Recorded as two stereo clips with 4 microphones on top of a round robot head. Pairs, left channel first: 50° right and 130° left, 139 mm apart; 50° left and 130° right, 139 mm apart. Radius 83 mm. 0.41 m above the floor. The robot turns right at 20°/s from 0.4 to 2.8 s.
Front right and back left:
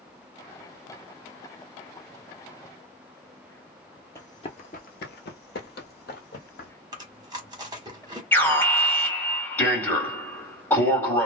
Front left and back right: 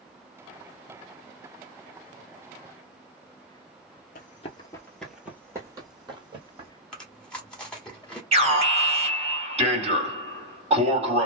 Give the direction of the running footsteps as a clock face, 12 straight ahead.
11 o'clock.